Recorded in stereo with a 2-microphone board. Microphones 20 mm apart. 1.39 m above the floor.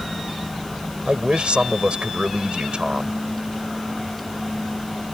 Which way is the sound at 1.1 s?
60° right (ahead or behind).